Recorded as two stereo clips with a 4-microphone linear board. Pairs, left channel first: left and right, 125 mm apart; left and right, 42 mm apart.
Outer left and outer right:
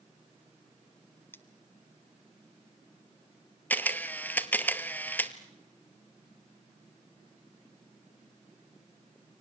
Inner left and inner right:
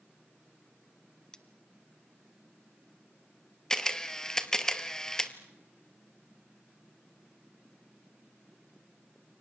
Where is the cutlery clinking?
15° left (ahead or behind), 1.2 m.